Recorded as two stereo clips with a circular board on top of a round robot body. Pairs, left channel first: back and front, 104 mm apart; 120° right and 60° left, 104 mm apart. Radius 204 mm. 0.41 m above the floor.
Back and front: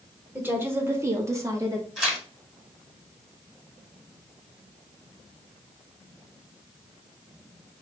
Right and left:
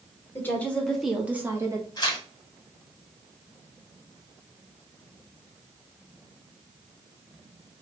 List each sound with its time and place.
0.3 s a woman speaking: 65° right, 1.7 m; by 1.9 s 40° left, 1.5 m
2.0 s tearing paper: 90° right, 1.7 m